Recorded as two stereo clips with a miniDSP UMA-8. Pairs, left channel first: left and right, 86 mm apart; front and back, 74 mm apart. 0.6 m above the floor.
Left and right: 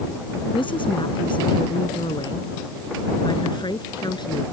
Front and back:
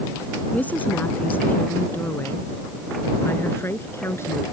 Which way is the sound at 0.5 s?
70° left.